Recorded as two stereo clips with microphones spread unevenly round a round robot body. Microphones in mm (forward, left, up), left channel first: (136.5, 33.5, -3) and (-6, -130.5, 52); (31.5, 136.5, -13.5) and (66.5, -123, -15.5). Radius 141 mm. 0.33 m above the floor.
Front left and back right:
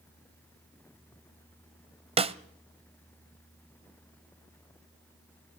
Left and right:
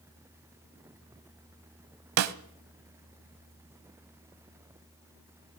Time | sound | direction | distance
2.2 | a snare drum | 60° right | 0.9 m